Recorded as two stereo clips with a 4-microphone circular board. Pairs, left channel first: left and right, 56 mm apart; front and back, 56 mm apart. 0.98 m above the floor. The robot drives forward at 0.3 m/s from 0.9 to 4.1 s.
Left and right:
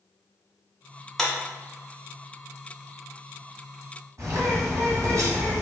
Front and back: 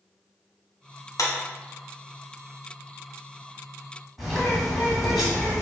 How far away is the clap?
About 0.8 m.